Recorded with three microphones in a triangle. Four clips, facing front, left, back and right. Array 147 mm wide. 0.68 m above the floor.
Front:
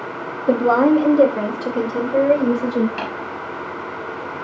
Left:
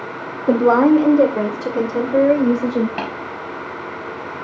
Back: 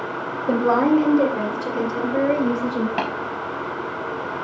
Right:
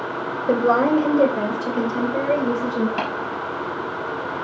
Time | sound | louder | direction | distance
0.5 | a woman speaking | left 5 dB, front 3 dB | 70° left | 2.5 m
3.0 | tapping | even, back 3 dB | 155° left | 4.5 m